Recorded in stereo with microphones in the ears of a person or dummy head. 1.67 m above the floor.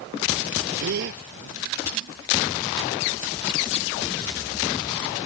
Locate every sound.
0.8 s a gasp: 60° right (ahead or behind)